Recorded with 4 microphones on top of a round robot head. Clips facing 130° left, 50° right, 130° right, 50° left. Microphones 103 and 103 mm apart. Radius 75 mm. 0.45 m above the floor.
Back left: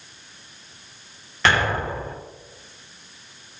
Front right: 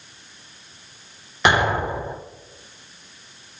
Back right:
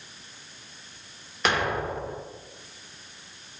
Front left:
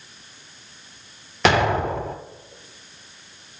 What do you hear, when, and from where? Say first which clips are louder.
1.4 s an explosion: front right 2 dB, front left 7 dB; 25° left, 0.7 m